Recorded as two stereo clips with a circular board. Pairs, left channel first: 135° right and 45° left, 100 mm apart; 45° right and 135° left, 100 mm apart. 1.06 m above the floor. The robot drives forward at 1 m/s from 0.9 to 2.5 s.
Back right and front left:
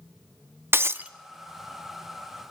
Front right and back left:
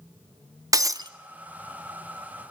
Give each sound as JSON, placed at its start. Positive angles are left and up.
{"t": 0.7, "sound": "breaking glass", "azimuth_deg": 100, "distance_m": 0.6}